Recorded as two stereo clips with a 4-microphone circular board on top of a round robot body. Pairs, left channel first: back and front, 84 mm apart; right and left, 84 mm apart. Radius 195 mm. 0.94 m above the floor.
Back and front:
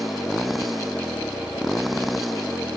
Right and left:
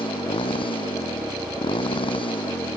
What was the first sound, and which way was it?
A motorcycle, 90° right.